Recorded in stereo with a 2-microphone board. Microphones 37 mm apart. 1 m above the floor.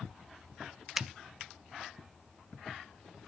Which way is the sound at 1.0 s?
15° right (ahead or behind).